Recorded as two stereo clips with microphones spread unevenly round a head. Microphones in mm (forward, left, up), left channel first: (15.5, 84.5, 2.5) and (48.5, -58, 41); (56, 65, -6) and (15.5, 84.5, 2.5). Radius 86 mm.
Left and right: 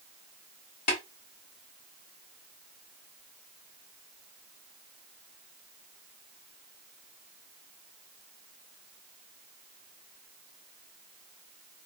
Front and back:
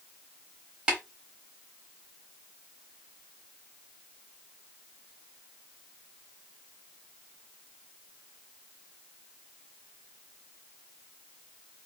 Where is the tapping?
140° left, 1.6 m.